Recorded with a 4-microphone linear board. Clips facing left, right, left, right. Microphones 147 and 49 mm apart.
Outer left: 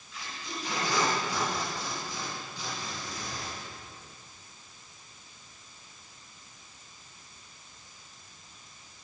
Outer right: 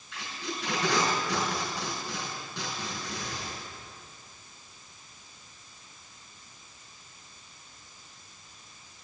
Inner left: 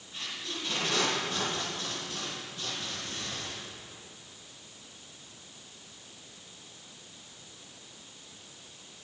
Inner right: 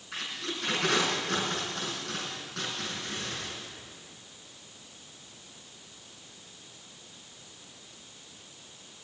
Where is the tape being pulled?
75° right (ahead or behind), 5 m.